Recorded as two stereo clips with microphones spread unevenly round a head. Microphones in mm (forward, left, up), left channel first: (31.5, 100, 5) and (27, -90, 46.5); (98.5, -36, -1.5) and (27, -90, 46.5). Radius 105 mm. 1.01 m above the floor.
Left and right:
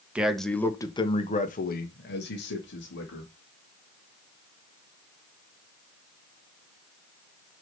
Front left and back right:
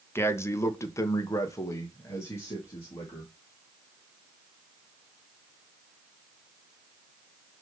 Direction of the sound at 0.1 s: Straight ahead.